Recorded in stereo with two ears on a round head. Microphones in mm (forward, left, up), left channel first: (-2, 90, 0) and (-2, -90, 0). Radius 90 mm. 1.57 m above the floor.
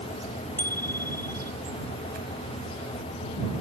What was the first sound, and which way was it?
A bicycle bell, 10° left (ahead or behind).